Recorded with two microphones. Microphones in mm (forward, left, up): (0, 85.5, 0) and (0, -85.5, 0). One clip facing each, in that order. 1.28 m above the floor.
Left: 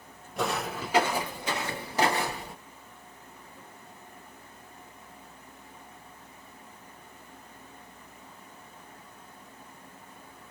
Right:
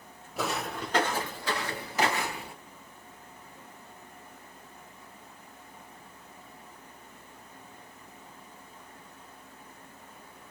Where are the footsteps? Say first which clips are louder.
Left 2 dB; 5° right (ahead or behind), 1.4 m; by 2.5 s 35° left (ahead or behind), 1.5 m.